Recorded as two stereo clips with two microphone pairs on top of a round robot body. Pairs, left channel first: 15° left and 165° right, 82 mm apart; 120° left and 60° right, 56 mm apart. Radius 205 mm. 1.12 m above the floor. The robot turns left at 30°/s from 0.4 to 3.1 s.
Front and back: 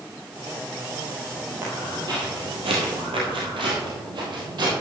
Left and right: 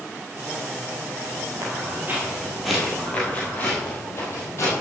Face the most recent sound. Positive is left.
turn(degrees=160)